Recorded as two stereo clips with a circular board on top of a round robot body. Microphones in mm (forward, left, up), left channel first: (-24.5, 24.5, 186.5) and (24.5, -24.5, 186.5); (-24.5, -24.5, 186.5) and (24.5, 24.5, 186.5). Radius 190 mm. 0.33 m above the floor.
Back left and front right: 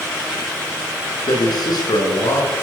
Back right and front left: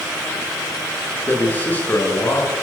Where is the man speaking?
160° left, 6.5 m.